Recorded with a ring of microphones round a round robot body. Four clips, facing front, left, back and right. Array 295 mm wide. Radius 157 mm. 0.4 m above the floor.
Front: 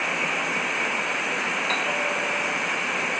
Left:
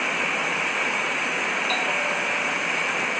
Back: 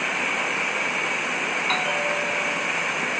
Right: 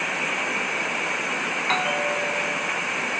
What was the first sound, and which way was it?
A bell, 110° right.